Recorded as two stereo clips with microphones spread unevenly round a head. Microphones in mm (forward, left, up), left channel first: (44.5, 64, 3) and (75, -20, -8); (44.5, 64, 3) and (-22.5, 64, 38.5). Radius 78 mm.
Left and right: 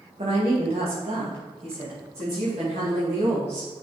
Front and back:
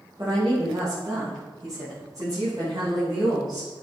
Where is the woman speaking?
115° right, 1.8 m.